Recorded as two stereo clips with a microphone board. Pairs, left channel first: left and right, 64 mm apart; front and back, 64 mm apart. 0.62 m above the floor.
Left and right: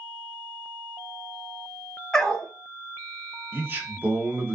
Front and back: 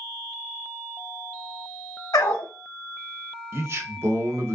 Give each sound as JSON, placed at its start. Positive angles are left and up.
{"t": 2.1, "sound": "a dog barking", "azimuth_deg": 15, "distance_m": 0.8}
{"t": 3.5, "sound": "a man speaking", "azimuth_deg": -140, "distance_m": 0.8}